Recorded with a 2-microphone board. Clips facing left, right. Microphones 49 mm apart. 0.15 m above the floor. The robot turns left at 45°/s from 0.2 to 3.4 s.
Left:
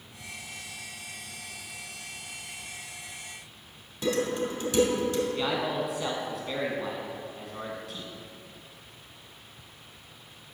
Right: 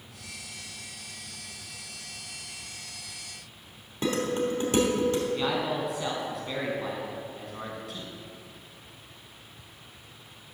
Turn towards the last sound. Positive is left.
turn(degrees=0)  # may be behind; listen again after turning